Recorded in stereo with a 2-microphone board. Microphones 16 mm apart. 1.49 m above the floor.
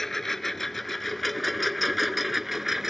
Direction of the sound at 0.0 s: 20° left (ahead or behind).